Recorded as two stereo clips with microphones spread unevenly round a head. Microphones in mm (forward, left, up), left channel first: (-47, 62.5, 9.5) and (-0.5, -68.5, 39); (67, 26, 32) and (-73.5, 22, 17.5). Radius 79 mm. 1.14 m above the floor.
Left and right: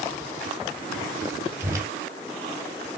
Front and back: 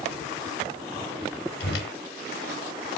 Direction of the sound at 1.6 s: Straight ahead.